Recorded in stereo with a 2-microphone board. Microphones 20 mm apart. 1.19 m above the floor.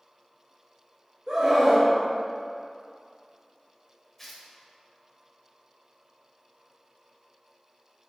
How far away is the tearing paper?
About 1.6 m.